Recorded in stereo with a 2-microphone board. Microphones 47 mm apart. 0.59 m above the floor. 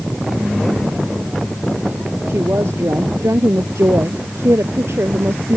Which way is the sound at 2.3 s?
85° right.